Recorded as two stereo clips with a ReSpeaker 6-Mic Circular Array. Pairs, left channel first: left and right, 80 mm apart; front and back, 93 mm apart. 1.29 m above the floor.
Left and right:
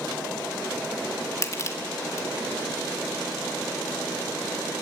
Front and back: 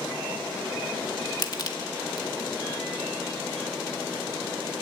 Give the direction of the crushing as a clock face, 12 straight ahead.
11 o'clock.